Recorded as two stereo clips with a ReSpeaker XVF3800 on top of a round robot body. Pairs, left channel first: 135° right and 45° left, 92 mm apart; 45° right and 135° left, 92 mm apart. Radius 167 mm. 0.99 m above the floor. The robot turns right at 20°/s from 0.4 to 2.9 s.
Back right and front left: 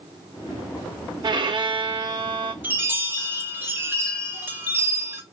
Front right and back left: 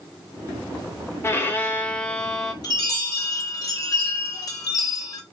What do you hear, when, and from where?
1.2 s a violin: 15° left, 0.7 m; by 2.5 s 45° left, 0.7 m
2.6 s a chime: 20° right, 0.9 m; by 5.2 s 10° right, 0.9 m